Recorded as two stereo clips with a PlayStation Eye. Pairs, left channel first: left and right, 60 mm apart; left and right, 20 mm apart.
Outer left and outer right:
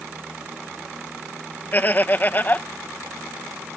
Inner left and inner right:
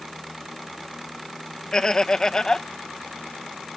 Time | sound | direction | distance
1.7 | laughter | 35° left (ahead or behind) | ?